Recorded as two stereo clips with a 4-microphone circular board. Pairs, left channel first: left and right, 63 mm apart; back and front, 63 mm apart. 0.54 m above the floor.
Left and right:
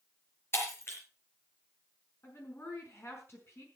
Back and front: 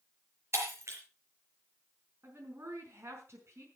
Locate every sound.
0.5 s breaking glass: 40° left, 5 m
2.2 s a woman speaking: 45° left, 5 m